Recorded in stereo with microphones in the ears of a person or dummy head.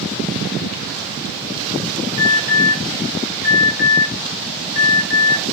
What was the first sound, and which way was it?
An alarm, 50° left (ahead or behind).